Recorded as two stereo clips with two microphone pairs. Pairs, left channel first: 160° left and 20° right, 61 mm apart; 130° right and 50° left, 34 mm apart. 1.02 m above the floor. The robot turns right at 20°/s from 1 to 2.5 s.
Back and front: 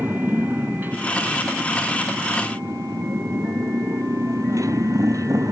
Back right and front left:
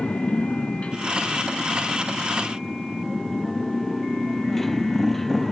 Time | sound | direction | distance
0.0 | a motorcycle | 80° right | ?